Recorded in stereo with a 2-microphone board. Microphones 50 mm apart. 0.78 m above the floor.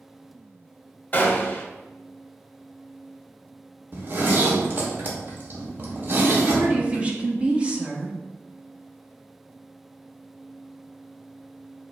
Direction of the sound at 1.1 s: 35° left (ahead or behind).